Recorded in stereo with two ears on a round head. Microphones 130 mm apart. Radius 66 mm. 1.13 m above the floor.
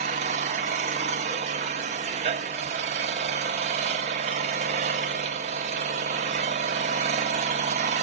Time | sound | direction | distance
0.0 | an engine running | 45° right (ahead or behind) | 0.9 m